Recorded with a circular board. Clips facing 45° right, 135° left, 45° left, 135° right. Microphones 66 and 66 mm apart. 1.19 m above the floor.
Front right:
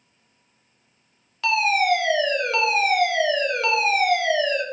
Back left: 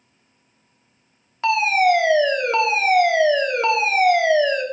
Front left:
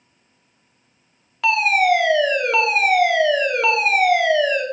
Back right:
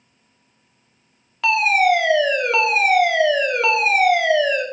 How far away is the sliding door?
I don't hear a sliding door.